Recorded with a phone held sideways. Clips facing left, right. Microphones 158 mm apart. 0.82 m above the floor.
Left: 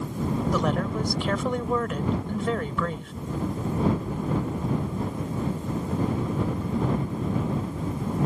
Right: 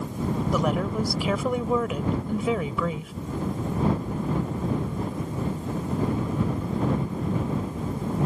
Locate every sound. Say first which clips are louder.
0.5 s a woman speaking: right 1 dB; 5° right (ahead or behind)